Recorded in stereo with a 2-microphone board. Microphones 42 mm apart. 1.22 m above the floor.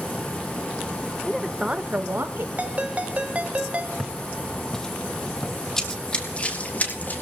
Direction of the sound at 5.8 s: 10° left (ahead or behind).